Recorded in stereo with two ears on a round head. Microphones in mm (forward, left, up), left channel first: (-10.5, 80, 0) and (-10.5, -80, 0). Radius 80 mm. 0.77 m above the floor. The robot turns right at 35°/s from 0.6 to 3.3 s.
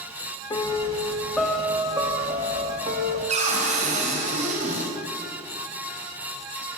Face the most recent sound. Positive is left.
turn(degrees=-40)  # may be behind; listen again after turning